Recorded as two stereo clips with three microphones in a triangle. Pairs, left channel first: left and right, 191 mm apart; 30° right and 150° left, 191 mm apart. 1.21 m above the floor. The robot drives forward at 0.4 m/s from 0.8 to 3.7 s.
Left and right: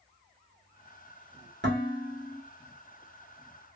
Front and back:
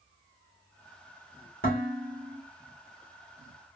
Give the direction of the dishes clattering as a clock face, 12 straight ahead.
2 o'clock.